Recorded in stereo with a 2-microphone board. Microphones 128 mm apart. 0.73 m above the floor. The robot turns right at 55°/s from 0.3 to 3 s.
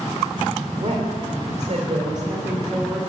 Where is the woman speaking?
115° right, 2.5 m; by 3.0 s 10° left, 2.5 m.